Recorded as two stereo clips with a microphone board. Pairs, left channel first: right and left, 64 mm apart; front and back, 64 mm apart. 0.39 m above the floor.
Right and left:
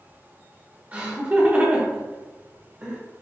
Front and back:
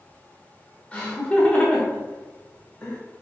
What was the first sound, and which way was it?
Laughter, 50° left.